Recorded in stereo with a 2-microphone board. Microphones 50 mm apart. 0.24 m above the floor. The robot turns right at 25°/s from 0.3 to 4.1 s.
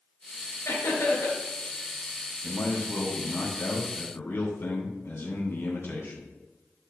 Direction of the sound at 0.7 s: 65° left (ahead or behind).